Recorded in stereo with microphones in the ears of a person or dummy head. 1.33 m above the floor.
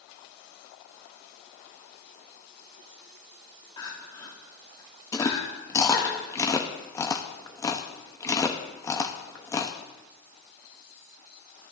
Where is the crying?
25° left (ahead or behind), 1.7 m.